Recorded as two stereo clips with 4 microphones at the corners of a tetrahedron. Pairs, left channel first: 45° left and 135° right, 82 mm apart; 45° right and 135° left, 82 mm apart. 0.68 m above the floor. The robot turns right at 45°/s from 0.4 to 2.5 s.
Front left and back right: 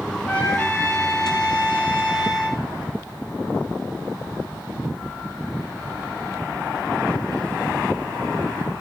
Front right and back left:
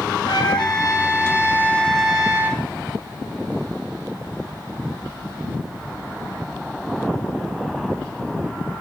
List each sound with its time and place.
0.3 s a trumpet: 25° right, 3.5 m; by 2.6 s 65° left, 3.5 m